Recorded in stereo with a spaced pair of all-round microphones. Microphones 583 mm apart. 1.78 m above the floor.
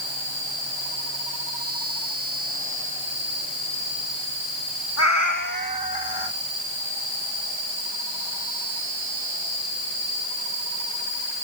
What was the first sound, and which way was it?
A cat meowing, 25° left (ahead or behind).